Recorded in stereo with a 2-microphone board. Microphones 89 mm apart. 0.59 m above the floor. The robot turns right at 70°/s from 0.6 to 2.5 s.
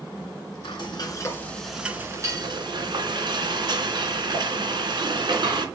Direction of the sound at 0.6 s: 105° left.